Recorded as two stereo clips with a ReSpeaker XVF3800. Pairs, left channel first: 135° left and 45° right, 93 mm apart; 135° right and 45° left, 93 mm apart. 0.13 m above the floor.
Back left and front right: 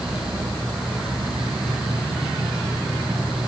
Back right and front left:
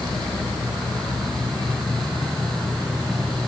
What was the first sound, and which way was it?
Only background noise.